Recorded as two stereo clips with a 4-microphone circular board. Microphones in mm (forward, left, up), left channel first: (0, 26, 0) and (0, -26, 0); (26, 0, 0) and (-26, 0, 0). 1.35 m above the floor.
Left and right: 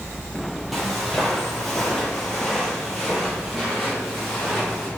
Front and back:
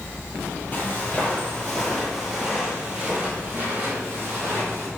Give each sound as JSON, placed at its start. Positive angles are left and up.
{"t": 0.7, "sound": "footsteps", "azimuth_deg": 5, "distance_m": 1.5}